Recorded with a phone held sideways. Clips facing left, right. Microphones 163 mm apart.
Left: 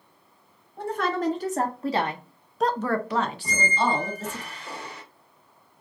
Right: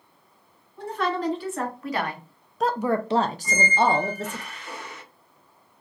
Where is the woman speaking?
50° left (ahead or behind), 1.2 m; by 4.4 s 70° right (ahead or behind), 1.0 m.